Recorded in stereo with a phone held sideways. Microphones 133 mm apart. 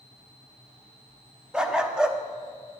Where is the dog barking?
5° right (ahead or behind), 0.9 m.